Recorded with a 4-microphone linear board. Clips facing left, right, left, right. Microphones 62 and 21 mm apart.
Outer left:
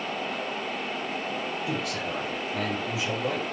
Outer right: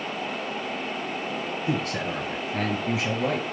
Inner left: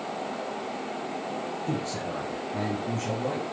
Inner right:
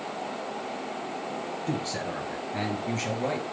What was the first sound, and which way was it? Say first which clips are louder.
A man speaking: outer right 3 dB, inner right 2 dB; 35° right (ahead or behind).